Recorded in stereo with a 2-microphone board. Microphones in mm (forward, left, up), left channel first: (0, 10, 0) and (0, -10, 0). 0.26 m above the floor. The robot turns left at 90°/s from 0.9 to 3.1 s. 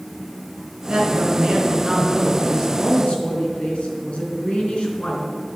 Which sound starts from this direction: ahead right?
A woman speaking, at 0.9 s.